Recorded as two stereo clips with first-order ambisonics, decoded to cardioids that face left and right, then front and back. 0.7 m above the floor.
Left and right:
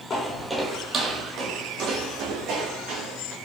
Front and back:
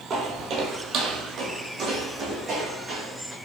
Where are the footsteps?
140° left, 0.8 m; by 3.3 s 115° right, 2.5 m.